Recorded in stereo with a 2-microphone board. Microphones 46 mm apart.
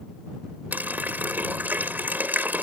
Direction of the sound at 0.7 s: 40° right (ahead or behind).